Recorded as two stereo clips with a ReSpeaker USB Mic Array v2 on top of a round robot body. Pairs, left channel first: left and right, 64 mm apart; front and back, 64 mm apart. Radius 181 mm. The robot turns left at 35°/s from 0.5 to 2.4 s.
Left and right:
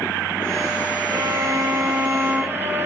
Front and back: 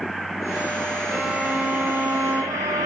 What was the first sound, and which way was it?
A violin, 105° right.